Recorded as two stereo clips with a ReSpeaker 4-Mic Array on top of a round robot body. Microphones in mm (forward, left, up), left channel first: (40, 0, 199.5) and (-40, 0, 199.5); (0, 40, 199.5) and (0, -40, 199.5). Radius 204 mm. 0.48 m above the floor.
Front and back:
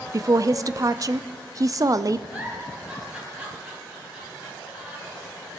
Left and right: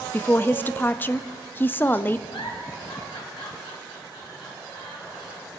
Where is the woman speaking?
150° left, 0.9 m.